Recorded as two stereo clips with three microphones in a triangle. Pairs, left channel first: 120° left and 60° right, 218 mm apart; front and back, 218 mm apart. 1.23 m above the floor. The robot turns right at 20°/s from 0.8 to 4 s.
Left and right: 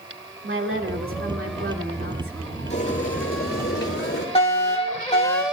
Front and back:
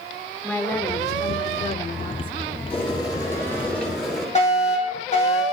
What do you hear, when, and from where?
0.4 s a woman speaking: 80° right, 2 m; by 2.5 s 50° right, 2 m
2.7 s boiling: 65° left, 7.5 m; by 4.2 s 90° left, 7.5 m
4.3 s a fire alarm: 60° left, 6.5 m